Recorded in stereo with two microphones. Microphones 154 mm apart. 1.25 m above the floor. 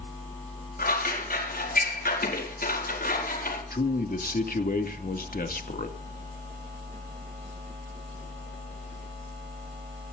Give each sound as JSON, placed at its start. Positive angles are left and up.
{"t": 0.8, "sound": "scissors", "side_deg": 75, "distance_m": 5.0}
{"t": 3.7, "sound": "a man speaking", "side_deg": 70, "distance_m": 2.5}